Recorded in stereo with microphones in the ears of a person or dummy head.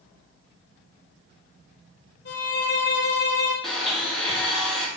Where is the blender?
Centre (ahead or behind), 0.8 m.